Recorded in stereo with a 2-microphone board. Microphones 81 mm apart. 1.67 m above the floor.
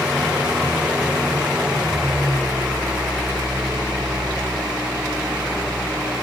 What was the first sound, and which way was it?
An engine running, 10° right (ahead or behind).